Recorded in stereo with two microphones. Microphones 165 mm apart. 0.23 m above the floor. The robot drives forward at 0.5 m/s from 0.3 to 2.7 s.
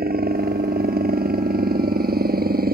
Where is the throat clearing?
No throat clearing in this recording.